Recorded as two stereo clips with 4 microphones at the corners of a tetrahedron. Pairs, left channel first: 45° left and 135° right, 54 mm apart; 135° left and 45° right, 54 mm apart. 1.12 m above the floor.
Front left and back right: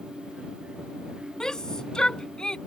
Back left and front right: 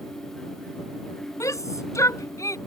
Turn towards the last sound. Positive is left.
turn(degrees=120)